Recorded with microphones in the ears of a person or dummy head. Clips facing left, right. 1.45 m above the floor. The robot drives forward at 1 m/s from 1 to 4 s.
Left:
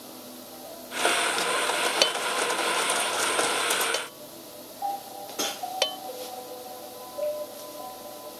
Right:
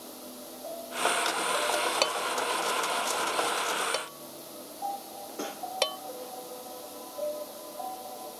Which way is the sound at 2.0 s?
15° left (ahead or behind).